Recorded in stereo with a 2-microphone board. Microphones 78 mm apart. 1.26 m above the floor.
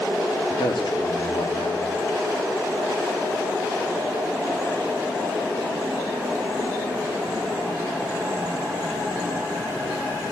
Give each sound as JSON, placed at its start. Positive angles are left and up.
{"t": 0.5, "sound": "a man speaking", "side_deg": 80, "distance_m": 2.5}